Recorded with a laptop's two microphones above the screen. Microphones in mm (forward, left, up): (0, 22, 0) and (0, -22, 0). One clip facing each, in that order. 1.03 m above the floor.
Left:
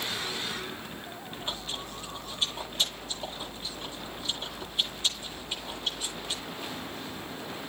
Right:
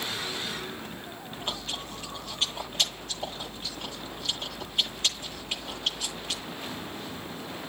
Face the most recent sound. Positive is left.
turn(degrees=-60)  # may be behind; listen again after turning